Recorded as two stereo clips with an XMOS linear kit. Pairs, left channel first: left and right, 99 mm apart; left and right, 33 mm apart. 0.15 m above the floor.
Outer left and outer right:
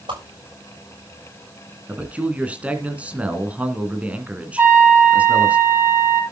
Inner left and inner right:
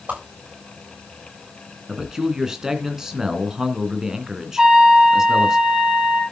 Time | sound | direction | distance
0.1 | a whoosh | 50° right (ahead or behind) | 7.5 m
1.9 | a man speaking | 15° right (ahead or behind) | 2.0 m
4.6 | a trumpet | 25° right (ahead or behind) | 3 m